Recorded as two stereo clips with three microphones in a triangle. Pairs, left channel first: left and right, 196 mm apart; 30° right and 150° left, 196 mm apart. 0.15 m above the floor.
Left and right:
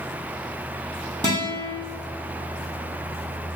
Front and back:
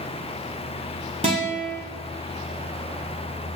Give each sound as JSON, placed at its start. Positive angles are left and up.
{"t": 1.2, "sound": "a guitar", "azimuth_deg": -155, "distance_m": 1.3}